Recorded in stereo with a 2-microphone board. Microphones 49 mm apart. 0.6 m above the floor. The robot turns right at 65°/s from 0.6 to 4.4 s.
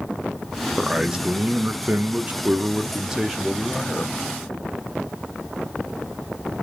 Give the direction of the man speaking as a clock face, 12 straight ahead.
6 o'clock.